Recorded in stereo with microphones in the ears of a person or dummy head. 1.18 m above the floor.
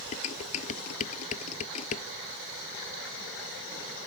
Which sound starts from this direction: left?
Dishes clattering, at 0.1 s.